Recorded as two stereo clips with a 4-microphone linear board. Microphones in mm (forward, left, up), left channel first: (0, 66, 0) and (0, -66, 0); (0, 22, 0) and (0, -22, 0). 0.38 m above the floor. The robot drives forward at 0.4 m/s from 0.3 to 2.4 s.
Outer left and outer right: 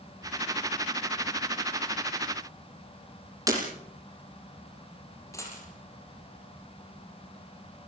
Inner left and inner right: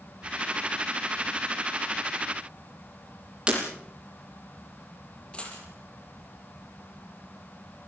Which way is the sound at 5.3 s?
20° left (ahead or behind).